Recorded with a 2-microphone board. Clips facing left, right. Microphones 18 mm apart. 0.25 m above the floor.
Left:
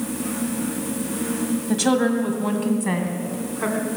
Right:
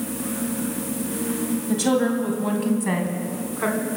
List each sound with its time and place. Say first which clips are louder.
1.7 s a woman speaking: left 1 dB; 15° left (ahead or behind), 1.7 m; by 3.8 s 15° right (ahead or behind), 2.5 m